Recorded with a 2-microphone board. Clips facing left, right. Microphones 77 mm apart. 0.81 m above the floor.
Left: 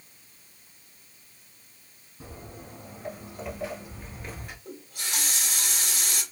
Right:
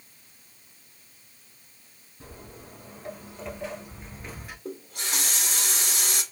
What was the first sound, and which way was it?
Footsteps, 10° left (ahead or behind).